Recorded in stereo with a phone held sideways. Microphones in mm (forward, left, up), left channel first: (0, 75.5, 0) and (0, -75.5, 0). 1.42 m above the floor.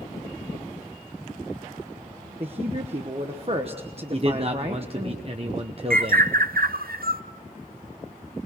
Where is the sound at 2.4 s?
40° right (ahead or behind), 1.2 m.